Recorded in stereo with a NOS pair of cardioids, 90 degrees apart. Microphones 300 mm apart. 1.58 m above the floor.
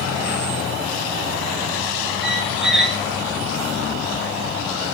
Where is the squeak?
Straight ahead, 1.6 m.